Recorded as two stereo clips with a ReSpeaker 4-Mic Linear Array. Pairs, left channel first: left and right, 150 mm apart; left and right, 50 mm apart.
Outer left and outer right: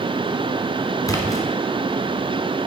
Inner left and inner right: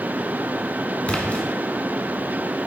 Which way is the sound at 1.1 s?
25° left (ahead or behind).